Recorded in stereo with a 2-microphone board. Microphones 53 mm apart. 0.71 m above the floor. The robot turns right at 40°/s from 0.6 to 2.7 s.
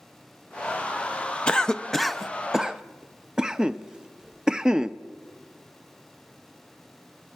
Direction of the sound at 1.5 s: 20° left (ahead or behind).